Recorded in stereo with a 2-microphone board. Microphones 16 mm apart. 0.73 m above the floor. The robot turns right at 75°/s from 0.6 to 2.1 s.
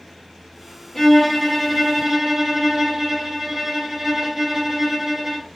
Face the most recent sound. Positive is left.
turn(degrees=-150)